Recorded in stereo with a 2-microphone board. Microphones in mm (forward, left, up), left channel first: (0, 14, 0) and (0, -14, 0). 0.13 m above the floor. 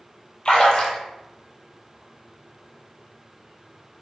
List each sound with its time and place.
0.5 s a splash: 35° left (ahead or behind), 0.8 m